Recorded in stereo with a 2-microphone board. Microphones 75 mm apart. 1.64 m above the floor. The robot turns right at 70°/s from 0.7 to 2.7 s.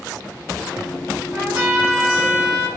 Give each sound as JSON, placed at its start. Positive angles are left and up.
{"t": 1.3, "sound": "a trumpet", "azimuth_deg": -60, "distance_m": 1.9}